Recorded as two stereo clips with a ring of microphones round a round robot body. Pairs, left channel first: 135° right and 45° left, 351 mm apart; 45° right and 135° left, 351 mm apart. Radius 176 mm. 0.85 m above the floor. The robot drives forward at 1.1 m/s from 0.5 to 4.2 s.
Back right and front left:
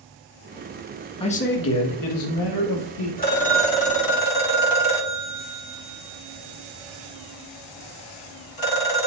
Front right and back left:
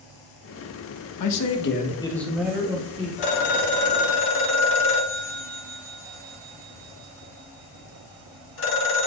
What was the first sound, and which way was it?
A man speaking, 60° right.